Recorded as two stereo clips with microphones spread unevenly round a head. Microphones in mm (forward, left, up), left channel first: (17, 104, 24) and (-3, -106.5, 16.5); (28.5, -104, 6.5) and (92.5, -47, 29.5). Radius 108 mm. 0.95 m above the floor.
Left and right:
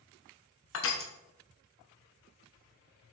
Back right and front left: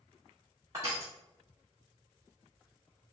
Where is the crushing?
115° left, 0.7 m.